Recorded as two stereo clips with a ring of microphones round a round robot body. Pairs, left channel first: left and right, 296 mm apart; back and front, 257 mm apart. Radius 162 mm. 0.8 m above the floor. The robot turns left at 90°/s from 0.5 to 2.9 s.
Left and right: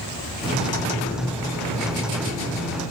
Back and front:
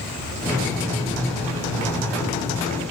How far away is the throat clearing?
I don't hear throat clearing.